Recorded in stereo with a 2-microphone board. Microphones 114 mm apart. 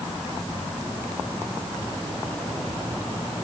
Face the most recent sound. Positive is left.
No sound to turn to.